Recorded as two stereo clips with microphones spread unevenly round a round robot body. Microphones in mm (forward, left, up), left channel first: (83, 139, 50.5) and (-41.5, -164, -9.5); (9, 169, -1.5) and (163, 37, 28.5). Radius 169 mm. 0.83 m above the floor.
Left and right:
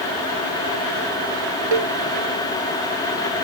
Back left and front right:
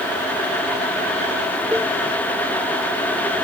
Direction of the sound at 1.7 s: 130° right.